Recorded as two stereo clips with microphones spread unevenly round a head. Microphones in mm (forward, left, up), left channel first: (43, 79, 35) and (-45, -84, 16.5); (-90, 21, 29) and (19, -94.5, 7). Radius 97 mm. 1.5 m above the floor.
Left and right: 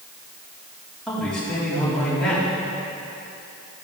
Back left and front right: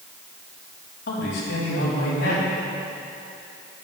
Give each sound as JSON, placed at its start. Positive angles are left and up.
{"t": 1.1, "sound": "a man speaking", "azimuth_deg": 150, "distance_m": 4.5}